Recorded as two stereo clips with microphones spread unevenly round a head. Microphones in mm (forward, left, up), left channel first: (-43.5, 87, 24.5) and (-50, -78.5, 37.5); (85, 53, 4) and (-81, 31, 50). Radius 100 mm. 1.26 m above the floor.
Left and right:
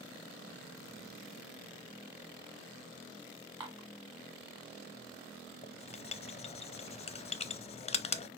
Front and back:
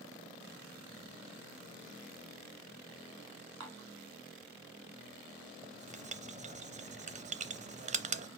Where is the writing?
130° left, 0.7 m.